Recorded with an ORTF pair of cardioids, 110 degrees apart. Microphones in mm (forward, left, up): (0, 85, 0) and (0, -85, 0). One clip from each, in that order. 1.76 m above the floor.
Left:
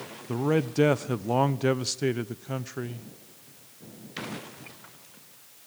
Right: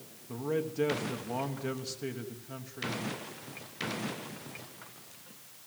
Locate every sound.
0.3 s a man speaking: 55° left, 1.0 m